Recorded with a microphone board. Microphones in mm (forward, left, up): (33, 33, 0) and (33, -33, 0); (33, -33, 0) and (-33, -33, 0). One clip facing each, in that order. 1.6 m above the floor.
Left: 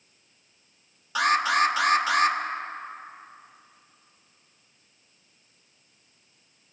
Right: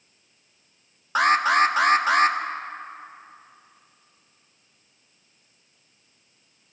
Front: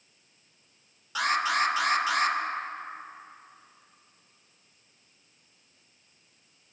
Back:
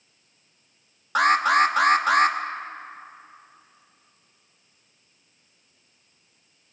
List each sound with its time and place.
1.1 s an alarm: 140° right, 1.3 m